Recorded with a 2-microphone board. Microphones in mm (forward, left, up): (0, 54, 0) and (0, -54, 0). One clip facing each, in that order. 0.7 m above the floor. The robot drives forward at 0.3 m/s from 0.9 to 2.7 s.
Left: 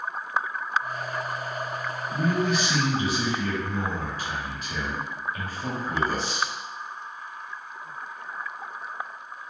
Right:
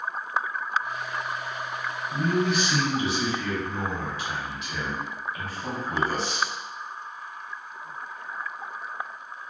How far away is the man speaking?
About 1.6 m.